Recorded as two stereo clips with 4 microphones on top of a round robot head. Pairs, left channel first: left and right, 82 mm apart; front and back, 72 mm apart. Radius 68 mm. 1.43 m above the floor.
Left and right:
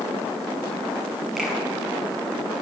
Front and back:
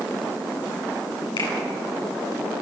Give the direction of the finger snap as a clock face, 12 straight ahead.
12 o'clock.